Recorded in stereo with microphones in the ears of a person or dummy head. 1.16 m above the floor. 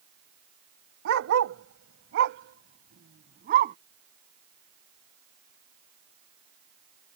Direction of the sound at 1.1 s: 65° right (ahead or behind).